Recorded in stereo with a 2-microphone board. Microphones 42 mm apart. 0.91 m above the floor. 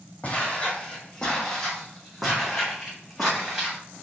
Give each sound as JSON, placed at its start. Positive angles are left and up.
{"t": 0.2, "sound": "footsteps", "side_deg": 30, "distance_m": 1.7}